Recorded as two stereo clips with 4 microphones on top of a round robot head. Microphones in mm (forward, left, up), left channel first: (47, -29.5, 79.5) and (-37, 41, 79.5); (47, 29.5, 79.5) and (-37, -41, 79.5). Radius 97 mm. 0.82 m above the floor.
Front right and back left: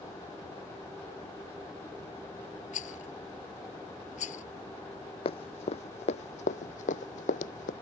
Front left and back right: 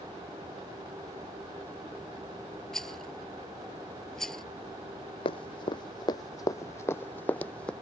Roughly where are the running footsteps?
Ahead.